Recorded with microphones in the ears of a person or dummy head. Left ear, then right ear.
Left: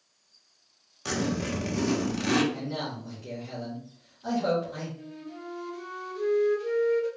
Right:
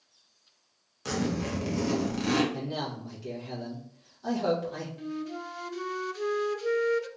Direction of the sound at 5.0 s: 50° right (ahead or behind).